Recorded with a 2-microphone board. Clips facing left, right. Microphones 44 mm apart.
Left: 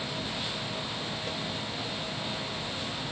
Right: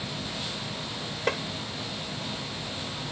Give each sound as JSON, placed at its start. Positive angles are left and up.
{"t": 1.3, "sound": "tapping", "side_deg": -75}